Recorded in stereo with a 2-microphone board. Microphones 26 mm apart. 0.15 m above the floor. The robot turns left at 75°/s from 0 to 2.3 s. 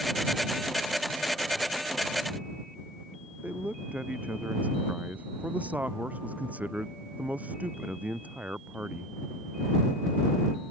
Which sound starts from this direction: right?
A man speaking, at 3.4 s.